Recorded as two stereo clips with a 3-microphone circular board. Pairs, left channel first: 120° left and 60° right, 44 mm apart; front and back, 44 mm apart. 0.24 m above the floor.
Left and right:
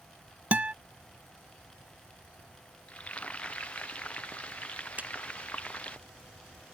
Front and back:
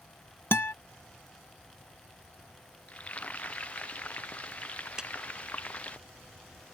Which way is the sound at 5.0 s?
105° right.